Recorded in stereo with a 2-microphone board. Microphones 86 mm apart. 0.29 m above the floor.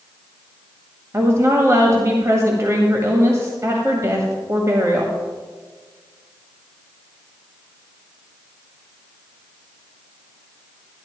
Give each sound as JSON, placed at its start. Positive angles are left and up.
{"t": 1.1, "sound": "a woman speaking", "side_deg": -35, "distance_m": 1.6}